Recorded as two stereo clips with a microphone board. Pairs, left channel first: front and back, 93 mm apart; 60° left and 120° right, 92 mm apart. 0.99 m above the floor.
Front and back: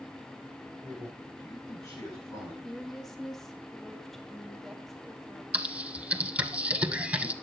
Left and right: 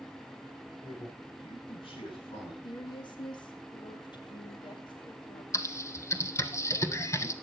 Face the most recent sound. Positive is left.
turn(degrees=110)